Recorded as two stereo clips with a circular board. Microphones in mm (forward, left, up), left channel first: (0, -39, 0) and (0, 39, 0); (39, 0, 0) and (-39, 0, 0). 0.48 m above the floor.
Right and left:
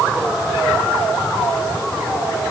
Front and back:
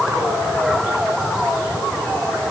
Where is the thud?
No thud in this recording.